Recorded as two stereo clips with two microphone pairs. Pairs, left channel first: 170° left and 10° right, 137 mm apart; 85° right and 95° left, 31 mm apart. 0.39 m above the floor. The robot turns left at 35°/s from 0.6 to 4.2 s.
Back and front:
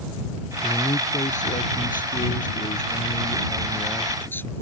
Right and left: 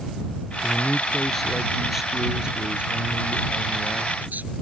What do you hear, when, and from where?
0.6 s a man speaking: 140° right; by 4.6 s 95° left